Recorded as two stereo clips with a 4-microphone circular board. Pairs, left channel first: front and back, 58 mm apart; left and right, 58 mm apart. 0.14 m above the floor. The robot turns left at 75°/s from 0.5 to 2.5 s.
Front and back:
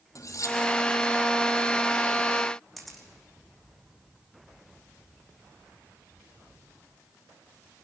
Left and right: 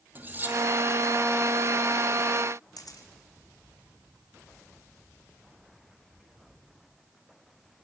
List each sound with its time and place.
0.1 s cutlery clinking: 30° right, 2.5 m; by 0.6 s 35° right, 2.5 m
2.8 s a camera shutter: 85° left, 2.5 m